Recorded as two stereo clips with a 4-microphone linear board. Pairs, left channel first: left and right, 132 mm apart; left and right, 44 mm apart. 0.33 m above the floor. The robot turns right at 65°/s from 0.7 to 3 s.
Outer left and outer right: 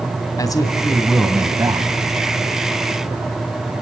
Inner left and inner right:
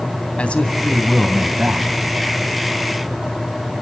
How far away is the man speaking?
About 2 m.